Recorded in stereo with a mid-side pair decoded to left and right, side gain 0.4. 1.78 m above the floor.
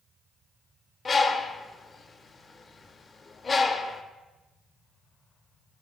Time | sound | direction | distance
1.1 | a bird | 40° left | 0.6 m